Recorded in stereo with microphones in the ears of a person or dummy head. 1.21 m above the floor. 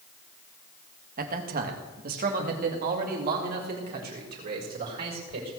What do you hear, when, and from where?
1.2 s a man speaking: 50° right (ahead or behind), 1.6 m